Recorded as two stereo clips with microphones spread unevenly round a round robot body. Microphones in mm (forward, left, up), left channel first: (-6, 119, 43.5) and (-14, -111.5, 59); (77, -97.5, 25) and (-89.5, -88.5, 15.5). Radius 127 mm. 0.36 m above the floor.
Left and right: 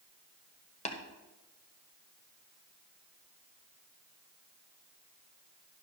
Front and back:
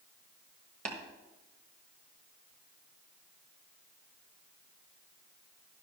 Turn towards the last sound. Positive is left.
turn(degrees=140)